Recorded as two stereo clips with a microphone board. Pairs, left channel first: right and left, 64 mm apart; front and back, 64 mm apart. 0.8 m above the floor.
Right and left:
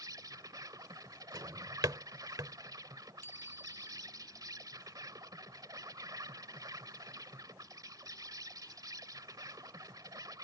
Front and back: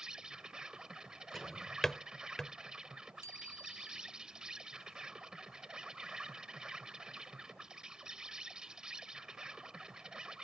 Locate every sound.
0.0 s an insect: 100° left
1.3 s a drawer: 85° left
3.2 s a bicycle bell: 140° right